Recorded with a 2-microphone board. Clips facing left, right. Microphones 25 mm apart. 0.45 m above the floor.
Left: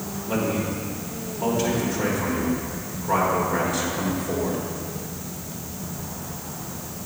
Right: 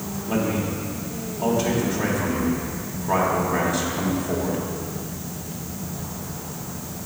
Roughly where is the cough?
No cough in this recording.